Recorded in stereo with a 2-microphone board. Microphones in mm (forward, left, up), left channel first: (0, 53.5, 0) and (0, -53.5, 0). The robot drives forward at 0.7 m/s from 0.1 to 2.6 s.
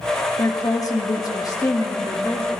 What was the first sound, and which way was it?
A woman speaking, 30° left (ahead or behind).